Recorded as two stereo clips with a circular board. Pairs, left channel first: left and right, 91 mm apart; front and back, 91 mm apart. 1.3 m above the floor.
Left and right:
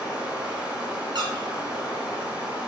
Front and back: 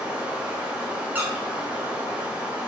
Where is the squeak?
115° right, 0.9 m.